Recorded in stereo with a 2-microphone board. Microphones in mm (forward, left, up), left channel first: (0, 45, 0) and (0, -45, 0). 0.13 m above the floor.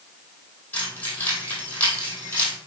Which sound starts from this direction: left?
Keys jangling, at 0.7 s.